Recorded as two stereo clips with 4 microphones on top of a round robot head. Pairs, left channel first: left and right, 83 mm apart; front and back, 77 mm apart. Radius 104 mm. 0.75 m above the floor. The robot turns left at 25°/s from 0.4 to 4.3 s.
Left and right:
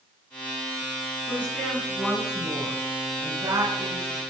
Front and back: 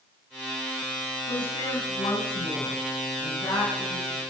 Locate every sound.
1.3 s a woman speaking: 15° left, 9 m; by 4.2 s 55° right, 9 m